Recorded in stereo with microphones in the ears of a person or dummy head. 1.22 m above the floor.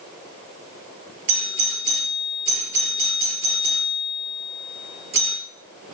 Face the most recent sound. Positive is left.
turn(degrees=-65)  # may be behind; listen again after turning